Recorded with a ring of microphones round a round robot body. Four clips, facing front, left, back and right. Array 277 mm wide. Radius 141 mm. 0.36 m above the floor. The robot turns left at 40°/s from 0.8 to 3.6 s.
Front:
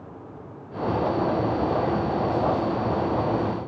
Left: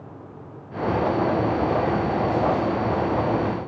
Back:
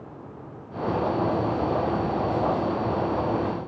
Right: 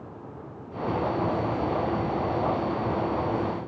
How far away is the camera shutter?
I don't hear a camera shutter.